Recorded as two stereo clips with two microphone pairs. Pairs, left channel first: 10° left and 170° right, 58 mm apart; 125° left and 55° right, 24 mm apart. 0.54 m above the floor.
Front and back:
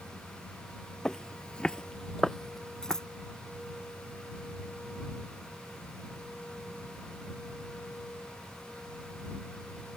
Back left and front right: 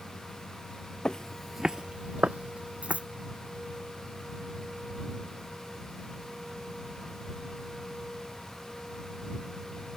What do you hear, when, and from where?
1.1 s footsteps: 90° left; by 3.0 s 70° right
2.8 s scissors: 65° right